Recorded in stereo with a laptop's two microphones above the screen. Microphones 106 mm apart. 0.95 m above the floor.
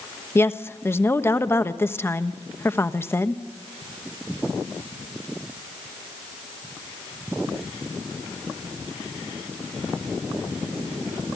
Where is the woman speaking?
20° left (ahead or behind), 1.1 m.